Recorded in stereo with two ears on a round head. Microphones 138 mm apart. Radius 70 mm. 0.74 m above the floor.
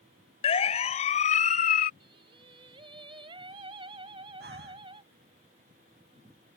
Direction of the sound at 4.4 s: 65° right (ahead or behind).